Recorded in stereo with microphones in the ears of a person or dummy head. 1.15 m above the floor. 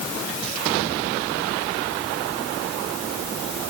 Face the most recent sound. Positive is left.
No sound to turn to.